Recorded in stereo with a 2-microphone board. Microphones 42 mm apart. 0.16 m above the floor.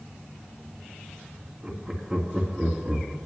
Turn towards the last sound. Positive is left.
turn(degrees=0)  # may be behind; listen again after turning